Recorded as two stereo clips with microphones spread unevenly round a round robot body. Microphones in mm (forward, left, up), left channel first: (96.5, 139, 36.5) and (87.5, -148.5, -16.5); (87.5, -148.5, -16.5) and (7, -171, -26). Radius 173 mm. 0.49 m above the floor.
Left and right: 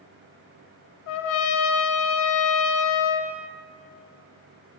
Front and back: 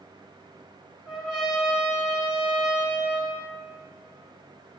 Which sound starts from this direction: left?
A trumpet, at 1.1 s.